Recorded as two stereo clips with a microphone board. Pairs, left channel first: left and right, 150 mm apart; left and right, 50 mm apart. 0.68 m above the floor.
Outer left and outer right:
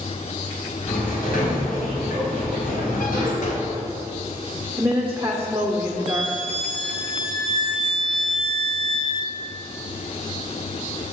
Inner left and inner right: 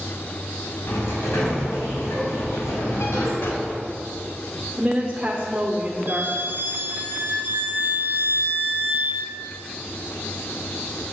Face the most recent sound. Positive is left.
turn(degrees=-55)  # may be behind; listen again after turning